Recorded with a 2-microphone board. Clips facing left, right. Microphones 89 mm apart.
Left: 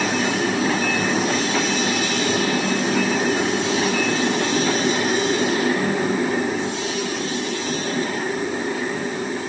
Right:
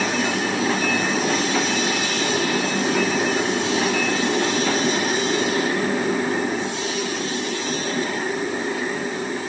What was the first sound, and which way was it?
Only background noise.